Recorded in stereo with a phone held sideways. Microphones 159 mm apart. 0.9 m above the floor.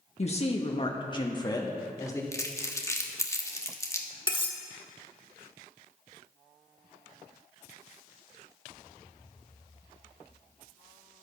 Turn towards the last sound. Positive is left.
turn(degrees=30)  # may be behind; listen again after turning